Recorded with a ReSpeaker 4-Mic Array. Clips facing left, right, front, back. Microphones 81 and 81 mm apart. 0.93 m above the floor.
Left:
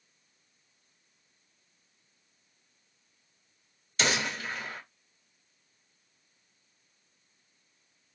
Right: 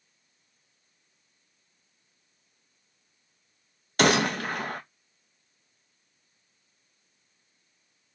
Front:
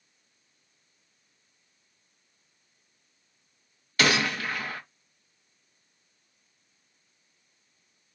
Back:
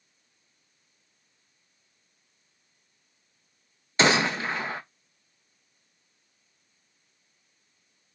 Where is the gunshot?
115° right, 0.5 m.